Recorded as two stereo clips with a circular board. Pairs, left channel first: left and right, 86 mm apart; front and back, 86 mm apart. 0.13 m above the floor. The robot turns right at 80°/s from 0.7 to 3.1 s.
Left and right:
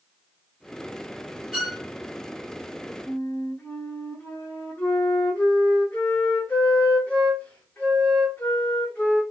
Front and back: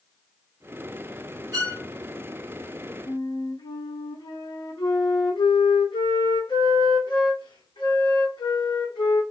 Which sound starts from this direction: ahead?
A flute, at 3.1 s.